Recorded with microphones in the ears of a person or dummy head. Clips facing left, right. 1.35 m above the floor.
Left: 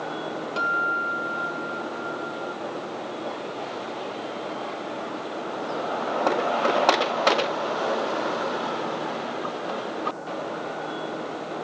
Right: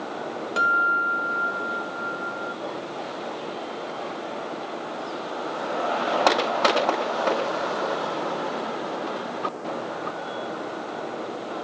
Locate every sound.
0.6 s a guitar: 15° right (ahead or behind)